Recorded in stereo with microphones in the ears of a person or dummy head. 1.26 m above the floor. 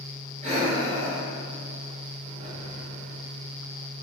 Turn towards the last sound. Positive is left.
turn(degrees=-35)  # may be behind; listen again after turning